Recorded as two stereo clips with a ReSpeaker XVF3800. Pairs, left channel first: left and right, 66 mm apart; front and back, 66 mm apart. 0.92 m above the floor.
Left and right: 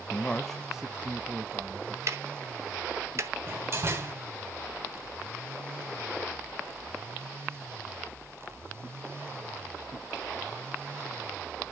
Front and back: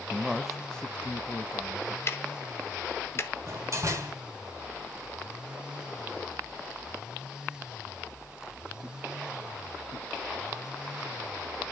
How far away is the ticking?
About 1.0 m.